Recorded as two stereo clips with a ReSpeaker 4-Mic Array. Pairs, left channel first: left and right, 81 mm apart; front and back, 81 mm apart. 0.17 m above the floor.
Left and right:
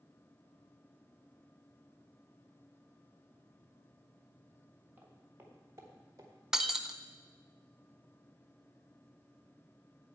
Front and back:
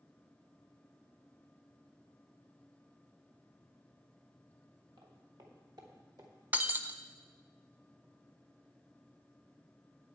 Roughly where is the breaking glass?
Behind.